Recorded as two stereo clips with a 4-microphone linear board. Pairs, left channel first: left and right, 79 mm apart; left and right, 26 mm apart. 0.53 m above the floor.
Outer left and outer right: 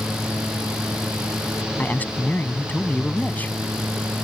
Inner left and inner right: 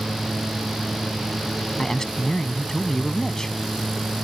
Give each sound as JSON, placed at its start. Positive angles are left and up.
{"t": 1.8, "sound": "a man speaking", "side_deg": 20}